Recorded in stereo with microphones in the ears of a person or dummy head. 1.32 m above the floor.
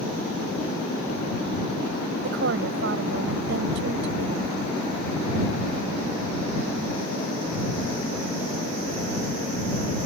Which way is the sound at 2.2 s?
70° right (ahead or behind).